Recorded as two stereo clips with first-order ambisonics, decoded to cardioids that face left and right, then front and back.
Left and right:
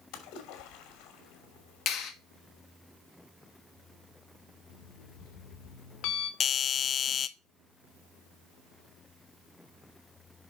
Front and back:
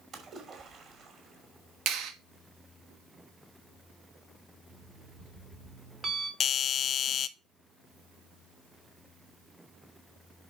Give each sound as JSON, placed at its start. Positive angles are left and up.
{"t": 0.1, "sound": "a splash", "azimuth_deg": 120, "distance_m": 2.5}
{"t": 1.9, "sound": "a clap", "azimuth_deg": 145, "distance_m": 1.8}
{"t": 4.7, "sound": "an alarm clock", "azimuth_deg": 120, "distance_m": 1.6}
{"t": 6.4, "sound": "a doorbell", "azimuth_deg": 45, "distance_m": 0.6}